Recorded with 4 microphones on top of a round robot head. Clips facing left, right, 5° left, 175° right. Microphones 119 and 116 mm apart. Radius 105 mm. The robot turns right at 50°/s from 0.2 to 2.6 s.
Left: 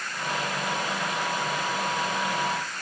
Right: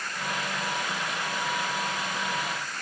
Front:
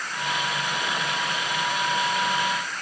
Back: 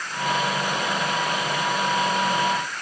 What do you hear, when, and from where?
Only background noise.